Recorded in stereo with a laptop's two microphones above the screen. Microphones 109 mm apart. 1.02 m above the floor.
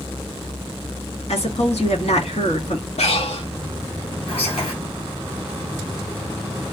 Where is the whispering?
65° left (ahead or behind), 2.0 m.